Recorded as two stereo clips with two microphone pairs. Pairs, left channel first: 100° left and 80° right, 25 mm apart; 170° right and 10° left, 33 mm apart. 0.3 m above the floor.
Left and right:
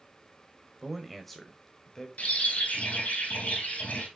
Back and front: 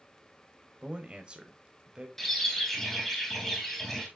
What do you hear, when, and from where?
0.8 s a man speaking: straight ahead, 1.4 m; by 2.1 s 50° left, 1.4 m
2.2 s a bird: 110° left, 2.5 m